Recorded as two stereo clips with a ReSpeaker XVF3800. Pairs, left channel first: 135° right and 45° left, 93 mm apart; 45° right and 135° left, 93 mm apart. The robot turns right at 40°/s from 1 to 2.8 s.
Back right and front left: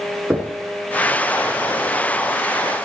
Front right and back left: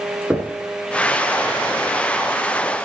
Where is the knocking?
85° left, 1.3 m.